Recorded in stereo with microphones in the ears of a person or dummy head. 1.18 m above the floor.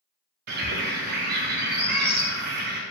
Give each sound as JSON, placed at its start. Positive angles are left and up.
{"t": 0.5, "sound": "a bird", "side_deg": -55, "distance_m": 0.7}